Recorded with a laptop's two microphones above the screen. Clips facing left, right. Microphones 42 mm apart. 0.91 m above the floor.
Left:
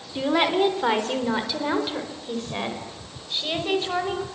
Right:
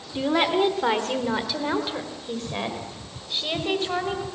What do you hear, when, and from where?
0.1 s a woman speaking: 5° left (ahead or behind), 2.5 m; by 4.2 s centre (ahead or behind), 4.5 m